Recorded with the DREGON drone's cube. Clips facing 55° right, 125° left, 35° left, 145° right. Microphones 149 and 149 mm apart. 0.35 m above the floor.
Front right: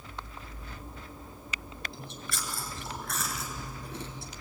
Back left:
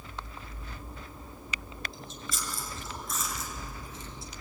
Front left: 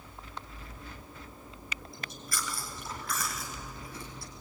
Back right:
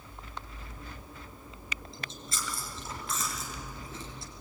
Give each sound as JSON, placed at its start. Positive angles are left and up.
{"t": 1.9, "sound": "chewing", "azimuth_deg": -80, "distance_m": 2.5}